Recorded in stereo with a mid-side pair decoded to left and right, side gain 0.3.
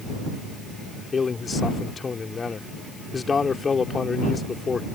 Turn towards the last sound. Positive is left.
turn(degrees=50)